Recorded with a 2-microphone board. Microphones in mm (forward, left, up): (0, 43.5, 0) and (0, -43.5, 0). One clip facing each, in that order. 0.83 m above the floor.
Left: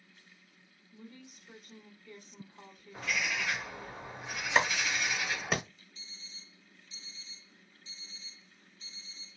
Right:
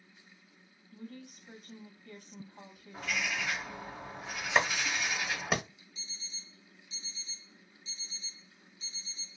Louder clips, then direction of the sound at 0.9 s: Right 5 dB; 65° right (ahead or behind).